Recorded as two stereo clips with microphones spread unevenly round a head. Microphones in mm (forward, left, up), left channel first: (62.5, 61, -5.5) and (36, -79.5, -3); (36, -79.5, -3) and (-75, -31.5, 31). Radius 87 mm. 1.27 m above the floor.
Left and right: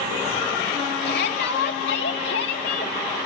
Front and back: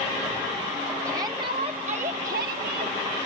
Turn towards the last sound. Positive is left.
turn(degrees=125)